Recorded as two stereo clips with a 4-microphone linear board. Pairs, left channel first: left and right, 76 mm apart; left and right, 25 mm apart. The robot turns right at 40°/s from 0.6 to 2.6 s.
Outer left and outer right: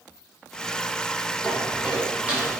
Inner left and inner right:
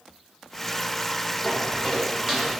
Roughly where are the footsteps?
Centre.